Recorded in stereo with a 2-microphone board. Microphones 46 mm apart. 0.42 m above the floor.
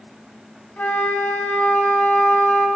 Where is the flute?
35° left (ahead or behind), 3.5 m.